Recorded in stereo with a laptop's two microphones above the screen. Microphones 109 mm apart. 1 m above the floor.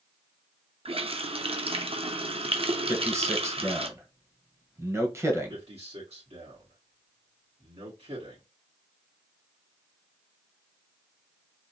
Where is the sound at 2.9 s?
25° right (ahead or behind), 1.0 m.